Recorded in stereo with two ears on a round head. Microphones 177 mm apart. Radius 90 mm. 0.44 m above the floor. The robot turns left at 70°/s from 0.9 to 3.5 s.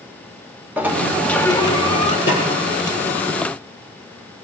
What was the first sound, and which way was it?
A sliding door, 165° right.